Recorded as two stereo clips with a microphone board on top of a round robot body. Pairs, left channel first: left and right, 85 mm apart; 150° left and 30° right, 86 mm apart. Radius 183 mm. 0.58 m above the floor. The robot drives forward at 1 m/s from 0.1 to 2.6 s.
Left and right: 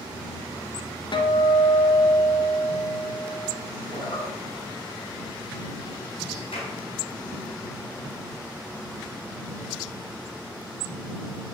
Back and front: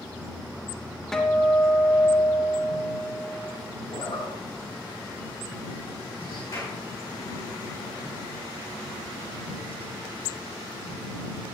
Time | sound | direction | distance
1.1 | a guitar | 65° left | 1.8 m
3.9 | a zipper | 115° left | 3.5 m
6.5 | a clap | 95° left | 6 m